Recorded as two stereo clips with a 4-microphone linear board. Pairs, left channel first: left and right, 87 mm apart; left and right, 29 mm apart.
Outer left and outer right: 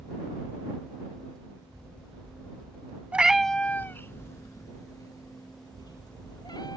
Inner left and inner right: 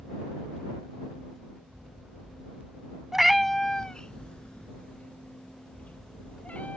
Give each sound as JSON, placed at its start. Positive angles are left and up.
{"t": 3.1, "sound": "a cat meowing", "side_deg": -15}